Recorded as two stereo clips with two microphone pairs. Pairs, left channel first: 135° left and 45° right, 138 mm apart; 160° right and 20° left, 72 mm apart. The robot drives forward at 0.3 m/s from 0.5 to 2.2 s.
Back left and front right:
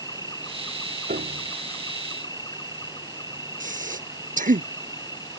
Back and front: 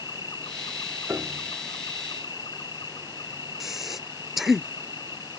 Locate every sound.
0.0 s an insect: 160° right
1.1 s a piano: 45° right
3.6 s breathing: 65° right